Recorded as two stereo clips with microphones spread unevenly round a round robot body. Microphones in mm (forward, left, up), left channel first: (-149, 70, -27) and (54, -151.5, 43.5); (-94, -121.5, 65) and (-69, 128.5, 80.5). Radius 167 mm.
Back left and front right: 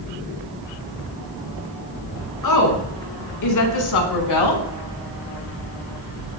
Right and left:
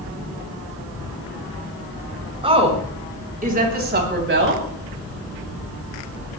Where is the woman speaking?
155° left, 5.5 m; by 4.6 s 120° left, 3.5 m.